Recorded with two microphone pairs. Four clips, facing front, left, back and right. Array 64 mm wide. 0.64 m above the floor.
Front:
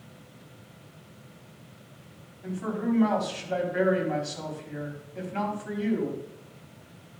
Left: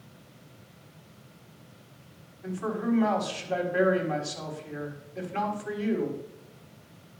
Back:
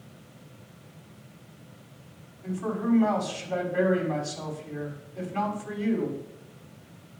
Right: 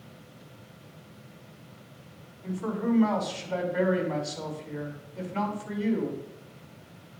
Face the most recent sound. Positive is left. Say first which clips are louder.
# even, back 1 dB
turn(degrees=60)